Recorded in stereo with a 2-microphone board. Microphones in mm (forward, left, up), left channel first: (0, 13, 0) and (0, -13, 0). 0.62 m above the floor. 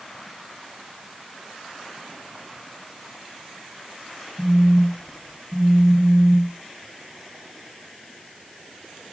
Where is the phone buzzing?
65° left (ahead or behind), 2 m.